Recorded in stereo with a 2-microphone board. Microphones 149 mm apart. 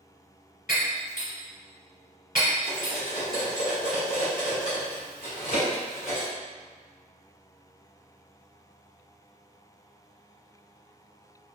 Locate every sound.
0.7 s breaking glass: 65° left (ahead or behind), 1.6 m
2.7 s cutlery clinking: 80° left, 1.5 m